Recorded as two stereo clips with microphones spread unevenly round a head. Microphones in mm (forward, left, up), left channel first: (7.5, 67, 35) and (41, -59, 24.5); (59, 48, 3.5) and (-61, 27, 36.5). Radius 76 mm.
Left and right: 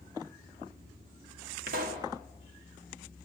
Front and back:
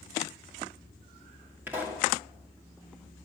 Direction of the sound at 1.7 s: 90° right.